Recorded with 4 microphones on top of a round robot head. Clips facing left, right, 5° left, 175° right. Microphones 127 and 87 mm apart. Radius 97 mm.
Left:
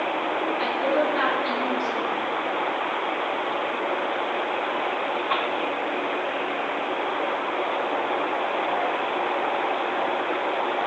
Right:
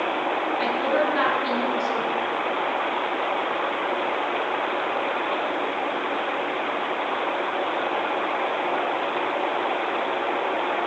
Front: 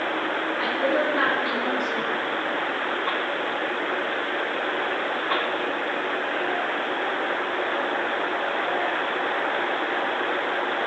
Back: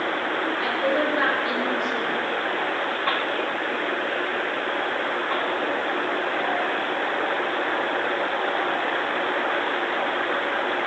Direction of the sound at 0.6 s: 50° right.